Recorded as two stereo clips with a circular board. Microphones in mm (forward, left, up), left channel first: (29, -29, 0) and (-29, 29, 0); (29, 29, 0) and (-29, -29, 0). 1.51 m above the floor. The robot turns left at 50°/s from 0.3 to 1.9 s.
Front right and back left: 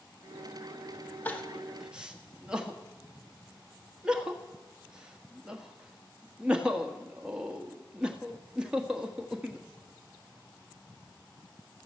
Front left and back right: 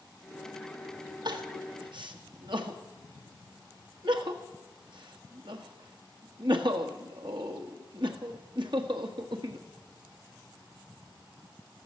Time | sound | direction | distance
1.2 | crying | 115° right | 1.5 m